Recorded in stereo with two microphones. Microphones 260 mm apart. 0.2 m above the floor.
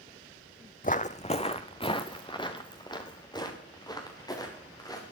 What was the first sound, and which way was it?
Footsteps, 35° left (ahead or behind).